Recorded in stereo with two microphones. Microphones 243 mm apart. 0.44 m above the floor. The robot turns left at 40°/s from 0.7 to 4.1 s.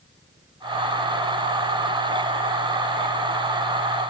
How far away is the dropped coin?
No dropped coin in this recording.